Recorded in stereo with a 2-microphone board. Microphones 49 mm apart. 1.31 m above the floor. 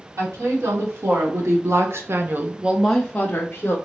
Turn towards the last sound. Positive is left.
turn(degrees=50)  # may be behind; listen again after turning